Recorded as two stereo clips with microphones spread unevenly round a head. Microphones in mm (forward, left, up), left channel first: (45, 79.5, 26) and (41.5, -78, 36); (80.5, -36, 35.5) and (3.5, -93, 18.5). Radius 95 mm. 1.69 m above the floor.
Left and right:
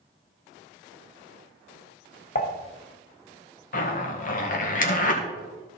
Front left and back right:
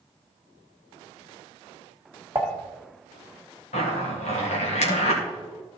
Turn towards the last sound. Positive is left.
turn(degrees=50)